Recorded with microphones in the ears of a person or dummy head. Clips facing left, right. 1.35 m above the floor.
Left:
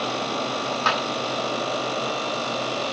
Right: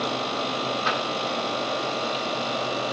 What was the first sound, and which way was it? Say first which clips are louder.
A clap: left 4 dB; 80° left.